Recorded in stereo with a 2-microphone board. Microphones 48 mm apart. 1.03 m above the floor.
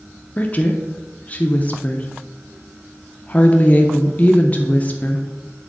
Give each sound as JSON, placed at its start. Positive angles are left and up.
{"t": 0.4, "sound": "a woman speaking", "side_deg": 30, "distance_m": 0.6}